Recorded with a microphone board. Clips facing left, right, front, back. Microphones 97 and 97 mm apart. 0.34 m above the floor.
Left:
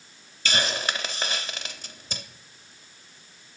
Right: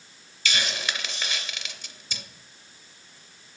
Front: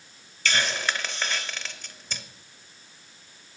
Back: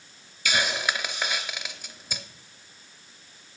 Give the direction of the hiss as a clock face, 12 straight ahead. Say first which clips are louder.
Left 3 dB, even; 8 o'clock.